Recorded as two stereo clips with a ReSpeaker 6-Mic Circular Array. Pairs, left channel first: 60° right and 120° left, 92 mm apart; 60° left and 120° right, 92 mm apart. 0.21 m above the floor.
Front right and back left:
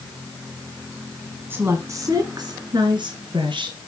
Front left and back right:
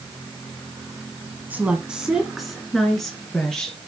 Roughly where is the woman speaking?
Behind.